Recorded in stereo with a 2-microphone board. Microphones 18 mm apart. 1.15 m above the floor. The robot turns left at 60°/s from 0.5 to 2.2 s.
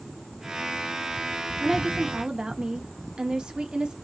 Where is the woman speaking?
15° right, 1.2 m; by 4.0 s 50° right, 1.2 m.